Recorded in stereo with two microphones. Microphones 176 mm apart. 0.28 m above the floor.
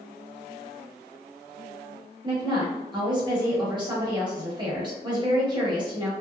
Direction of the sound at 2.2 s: 25° right (ahead or behind).